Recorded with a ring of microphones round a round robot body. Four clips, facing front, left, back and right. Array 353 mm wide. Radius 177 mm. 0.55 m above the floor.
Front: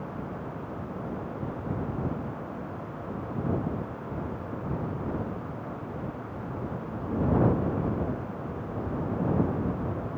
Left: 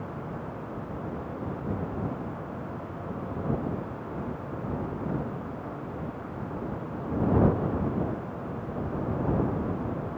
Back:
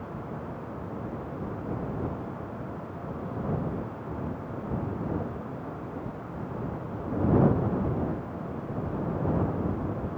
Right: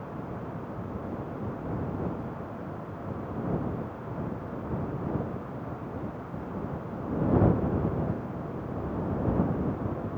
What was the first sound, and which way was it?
Only background noise.